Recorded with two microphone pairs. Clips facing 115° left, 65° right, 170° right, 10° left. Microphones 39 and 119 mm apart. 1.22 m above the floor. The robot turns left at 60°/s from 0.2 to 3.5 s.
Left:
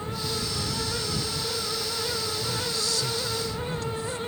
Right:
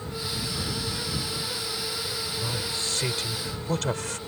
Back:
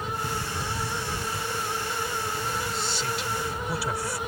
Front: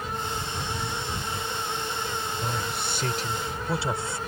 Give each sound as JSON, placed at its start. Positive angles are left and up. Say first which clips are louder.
{"t": 0.2, "sound": "a drawer", "louder": "left 2 dB, back 1 dB", "azimuth_deg": 140}
{"t": 2.4, "sound": "a man speaking", "louder": "left 1 dB, even", "azimuth_deg": 10}